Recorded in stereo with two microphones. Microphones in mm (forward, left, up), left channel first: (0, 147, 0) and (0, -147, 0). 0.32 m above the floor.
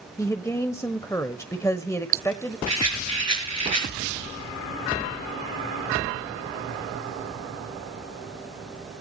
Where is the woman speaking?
10° left (ahead or behind), 1.0 m.